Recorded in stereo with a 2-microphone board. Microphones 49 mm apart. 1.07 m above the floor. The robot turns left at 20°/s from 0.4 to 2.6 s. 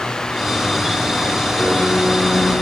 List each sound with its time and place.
1.6 s a piano: 45° left (ahead or behind), 3.5 m; by 2.5 s 30° left (ahead or behind), 3.5 m